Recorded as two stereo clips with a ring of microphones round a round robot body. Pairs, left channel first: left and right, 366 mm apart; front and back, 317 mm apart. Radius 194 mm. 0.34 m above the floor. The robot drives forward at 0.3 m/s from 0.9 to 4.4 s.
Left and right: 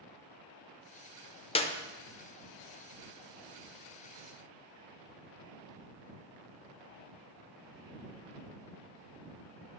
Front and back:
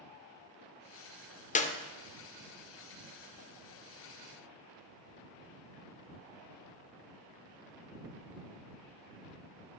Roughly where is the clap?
Ahead left.